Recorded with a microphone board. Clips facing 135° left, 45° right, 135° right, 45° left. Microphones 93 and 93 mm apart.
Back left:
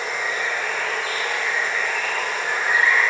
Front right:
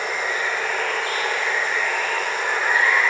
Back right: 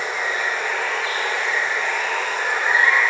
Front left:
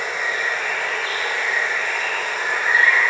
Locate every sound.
0.0 s running water: 75° right, 1.3 m